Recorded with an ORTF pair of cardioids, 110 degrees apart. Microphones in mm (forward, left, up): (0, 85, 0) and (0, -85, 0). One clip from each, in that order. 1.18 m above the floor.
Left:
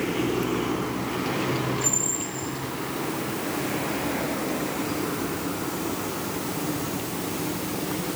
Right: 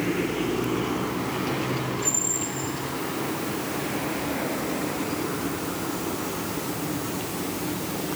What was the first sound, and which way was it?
Only background noise.